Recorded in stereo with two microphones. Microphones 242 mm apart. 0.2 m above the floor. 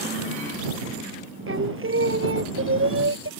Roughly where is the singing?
Right.